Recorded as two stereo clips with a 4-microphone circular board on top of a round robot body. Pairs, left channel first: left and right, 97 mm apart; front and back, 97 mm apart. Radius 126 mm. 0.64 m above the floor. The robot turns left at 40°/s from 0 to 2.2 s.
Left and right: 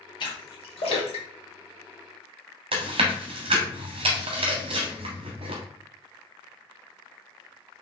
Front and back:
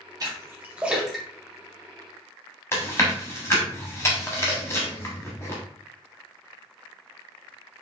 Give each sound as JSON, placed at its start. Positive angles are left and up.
{"t": 0.2, "sound": "a splash", "azimuth_deg": 130, "distance_m": 1.7}
{"t": 2.7, "sound": "chewing", "azimuth_deg": -65, "distance_m": 0.8}